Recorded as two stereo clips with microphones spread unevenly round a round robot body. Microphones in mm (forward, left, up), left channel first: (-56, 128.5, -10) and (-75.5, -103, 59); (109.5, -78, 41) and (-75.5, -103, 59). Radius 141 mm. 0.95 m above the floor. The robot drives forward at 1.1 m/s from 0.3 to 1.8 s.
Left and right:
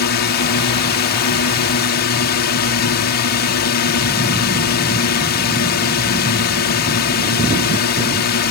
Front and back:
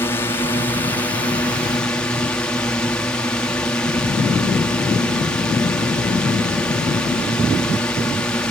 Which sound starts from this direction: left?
A drone, at 0.0 s.